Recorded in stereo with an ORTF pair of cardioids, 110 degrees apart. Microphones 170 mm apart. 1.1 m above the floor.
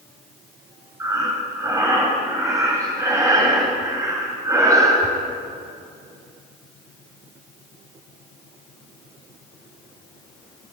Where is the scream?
I don't hear a scream.